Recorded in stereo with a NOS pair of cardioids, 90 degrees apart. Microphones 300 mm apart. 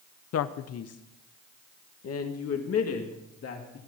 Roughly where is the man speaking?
Ahead left.